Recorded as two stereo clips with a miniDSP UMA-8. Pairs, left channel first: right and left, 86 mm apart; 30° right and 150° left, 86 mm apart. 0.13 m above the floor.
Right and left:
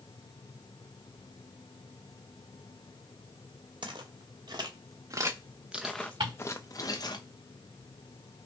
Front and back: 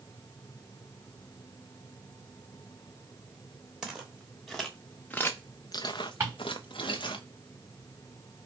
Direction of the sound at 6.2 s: 90° left.